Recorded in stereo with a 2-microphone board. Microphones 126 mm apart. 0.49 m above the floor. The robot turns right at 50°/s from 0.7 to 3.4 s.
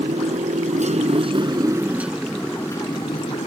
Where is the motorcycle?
75° right; by 3.5 s 60° left.